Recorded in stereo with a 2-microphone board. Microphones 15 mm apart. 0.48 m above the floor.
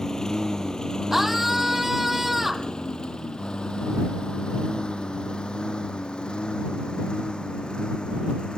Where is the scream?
15° right (ahead or behind).